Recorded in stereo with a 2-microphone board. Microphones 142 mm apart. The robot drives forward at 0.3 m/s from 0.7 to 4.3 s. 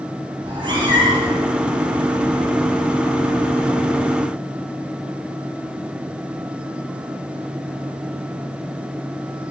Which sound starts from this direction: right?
A cat meowing, at 0.4 s.